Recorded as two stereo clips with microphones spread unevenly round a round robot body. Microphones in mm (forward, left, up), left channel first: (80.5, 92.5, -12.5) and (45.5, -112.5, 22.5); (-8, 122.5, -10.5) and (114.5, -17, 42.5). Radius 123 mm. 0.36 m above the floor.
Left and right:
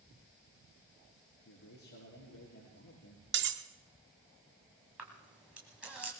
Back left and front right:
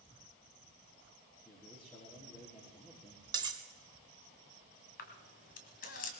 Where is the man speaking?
65° left, 6 m.